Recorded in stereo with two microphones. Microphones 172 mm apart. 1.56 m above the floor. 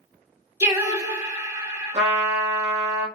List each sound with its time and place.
0.6 s singing: 20° right (ahead or behind), 1.5 m
1.9 s a trumpet: 45° right (ahead or behind), 1.1 m